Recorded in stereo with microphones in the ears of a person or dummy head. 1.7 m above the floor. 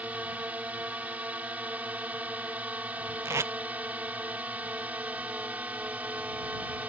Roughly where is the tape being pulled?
Centre.